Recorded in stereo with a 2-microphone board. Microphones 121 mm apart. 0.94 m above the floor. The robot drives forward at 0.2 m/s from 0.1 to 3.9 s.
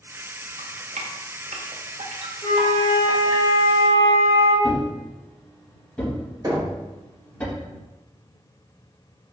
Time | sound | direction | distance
0.6 | dripping | 70° right (ahead or behind) | 0.6 m
2.4 | a flute | 40° left (ahead or behind) | 2 m
4.6 | a thud | 10° left (ahead or behind) | 1.9 m
6.4 | knocking | 35° right (ahead or behind) | 1.3 m